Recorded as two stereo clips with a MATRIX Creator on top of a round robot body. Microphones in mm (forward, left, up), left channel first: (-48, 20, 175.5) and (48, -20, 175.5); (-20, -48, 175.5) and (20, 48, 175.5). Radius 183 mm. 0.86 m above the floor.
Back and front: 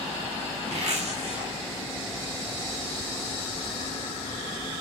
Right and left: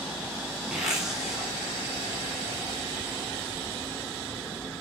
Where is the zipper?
15° right, 2.5 m.